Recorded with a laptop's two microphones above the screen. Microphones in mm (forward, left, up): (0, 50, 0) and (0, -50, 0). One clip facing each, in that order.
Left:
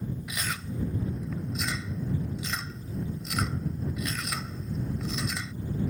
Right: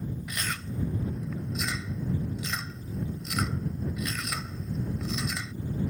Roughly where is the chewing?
Centre.